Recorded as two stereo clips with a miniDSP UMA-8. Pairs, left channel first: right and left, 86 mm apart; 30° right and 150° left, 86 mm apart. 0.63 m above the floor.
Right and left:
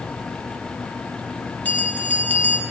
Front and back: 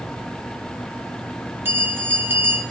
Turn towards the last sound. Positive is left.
turn(degrees=-155)